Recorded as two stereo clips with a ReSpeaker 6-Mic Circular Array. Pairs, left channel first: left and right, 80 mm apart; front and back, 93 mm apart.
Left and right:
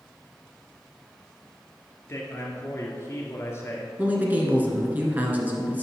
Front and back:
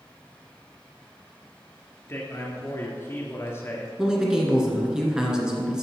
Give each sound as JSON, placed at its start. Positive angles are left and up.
{"t": 2.1, "sound": "a man speaking", "azimuth_deg": 50, "distance_m": 1.7}
{"t": 4.0, "sound": "a man speaking", "azimuth_deg": -110, "distance_m": 1.6}